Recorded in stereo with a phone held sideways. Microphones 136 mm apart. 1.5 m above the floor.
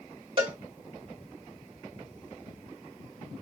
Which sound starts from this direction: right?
A cowbell, at 0.4 s.